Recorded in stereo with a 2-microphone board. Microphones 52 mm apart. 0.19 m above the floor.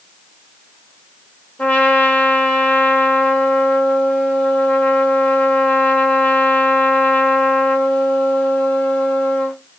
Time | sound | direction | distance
1.6 | a trumpet | 25° left (ahead or behind) | 1.0 m